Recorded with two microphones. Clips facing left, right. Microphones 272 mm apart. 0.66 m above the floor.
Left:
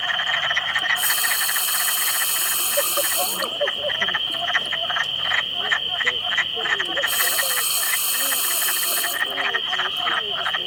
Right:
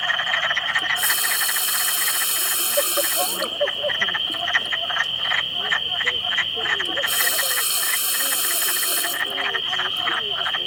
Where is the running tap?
20° right (ahead or behind).